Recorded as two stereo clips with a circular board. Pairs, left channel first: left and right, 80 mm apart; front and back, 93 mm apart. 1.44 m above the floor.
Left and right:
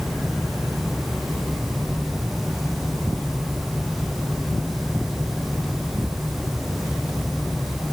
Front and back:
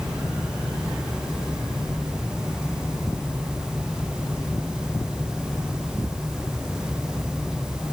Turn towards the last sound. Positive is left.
No sound to turn to.